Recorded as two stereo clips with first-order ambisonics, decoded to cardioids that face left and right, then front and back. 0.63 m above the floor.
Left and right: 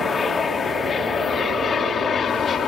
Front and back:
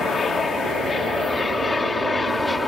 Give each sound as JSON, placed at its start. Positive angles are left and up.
{"t": 0.0, "sound": "an aircraft", "azimuth_deg": 45}